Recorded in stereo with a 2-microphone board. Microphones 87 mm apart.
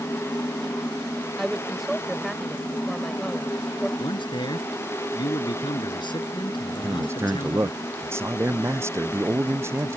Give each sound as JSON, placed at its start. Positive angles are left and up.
{"t": 1.4, "sound": "a woman speaking", "side_deg": 0}
{"t": 4.0, "sound": "a man speaking", "side_deg": 60}
{"t": 6.7, "sound": "a man speaking", "side_deg": -30}